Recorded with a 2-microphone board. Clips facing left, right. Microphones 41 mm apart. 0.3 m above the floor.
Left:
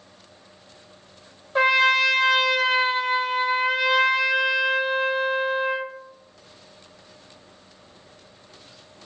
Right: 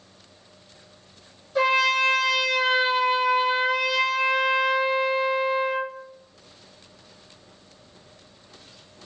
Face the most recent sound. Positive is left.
turn(degrees=35)  # may be behind; listen again after turning